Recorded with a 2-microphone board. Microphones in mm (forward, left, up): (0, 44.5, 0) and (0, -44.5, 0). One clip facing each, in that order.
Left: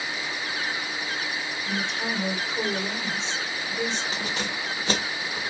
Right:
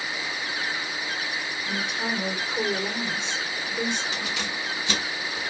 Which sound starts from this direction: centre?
A woman speaking, at 1.6 s.